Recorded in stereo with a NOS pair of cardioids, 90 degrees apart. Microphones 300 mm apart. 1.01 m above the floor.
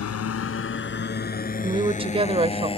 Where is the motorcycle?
55° left; by 2.8 s 20° left.